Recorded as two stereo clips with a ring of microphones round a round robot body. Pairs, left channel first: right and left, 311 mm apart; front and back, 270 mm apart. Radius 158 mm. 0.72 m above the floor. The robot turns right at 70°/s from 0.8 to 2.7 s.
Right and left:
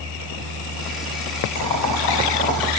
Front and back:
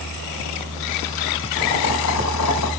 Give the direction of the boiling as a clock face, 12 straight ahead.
3 o'clock.